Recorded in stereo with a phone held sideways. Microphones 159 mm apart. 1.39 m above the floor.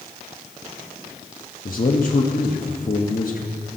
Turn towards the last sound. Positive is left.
turn(degrees=60)  # may be behind; listen again after turning